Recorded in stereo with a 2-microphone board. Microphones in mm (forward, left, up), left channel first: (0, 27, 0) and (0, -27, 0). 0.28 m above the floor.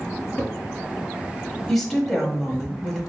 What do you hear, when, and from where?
0.4 s a cupboard door: 20° left (ahead or behind), 2.5 m
1.7 s a woman speaking: 5° left (ahead or behind), 1.3 m